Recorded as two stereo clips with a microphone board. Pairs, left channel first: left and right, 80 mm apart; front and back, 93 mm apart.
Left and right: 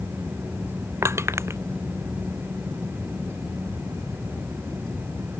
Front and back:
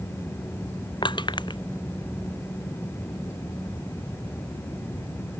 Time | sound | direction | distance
1.0 | crushing | 35° right | ?